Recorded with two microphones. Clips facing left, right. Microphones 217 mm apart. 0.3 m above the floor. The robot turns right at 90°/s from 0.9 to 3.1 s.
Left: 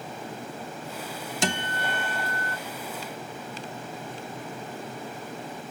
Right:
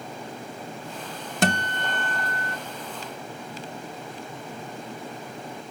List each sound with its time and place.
1.4 s a guitar: 115° right, 0.6 m; by 2.6 s 15° right, 0.6 m